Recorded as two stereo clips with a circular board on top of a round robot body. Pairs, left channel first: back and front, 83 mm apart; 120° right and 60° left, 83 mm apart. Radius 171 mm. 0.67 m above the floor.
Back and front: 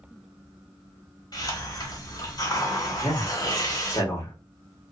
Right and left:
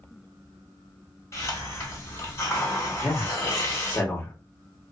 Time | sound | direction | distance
1.3 | a hiss | 165° right | 1.4 m
3.0 | a man speaking | 175° right | 1.2 m